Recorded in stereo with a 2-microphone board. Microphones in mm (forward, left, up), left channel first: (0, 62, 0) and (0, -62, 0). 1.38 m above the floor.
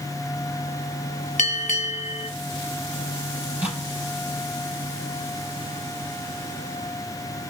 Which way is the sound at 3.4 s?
15° right (ahead or behind).